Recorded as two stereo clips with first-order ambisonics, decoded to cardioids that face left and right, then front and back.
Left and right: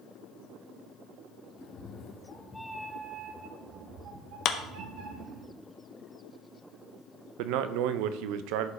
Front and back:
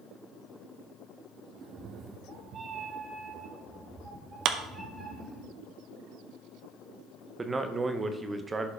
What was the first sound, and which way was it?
A cat meowing, 115° left.